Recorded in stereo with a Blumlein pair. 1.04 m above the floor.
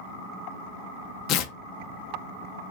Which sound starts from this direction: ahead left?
Tearing paper, at 1.3 s.